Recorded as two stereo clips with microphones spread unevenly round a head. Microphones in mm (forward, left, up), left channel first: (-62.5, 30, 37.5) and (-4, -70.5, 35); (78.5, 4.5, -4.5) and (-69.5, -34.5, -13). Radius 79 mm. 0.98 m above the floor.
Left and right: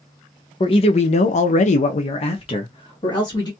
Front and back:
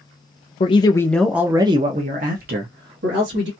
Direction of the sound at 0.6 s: 70° left.